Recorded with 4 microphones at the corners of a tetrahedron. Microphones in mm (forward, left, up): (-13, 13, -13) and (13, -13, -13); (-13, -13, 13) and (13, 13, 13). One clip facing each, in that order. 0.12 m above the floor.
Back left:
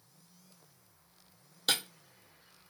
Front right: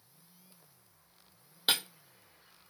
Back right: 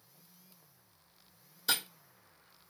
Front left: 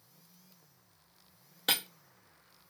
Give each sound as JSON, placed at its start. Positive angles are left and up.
{"t": 1.7, "sound": "breaking glass", "azimuth_deg": 20, "distance_m": 0.8}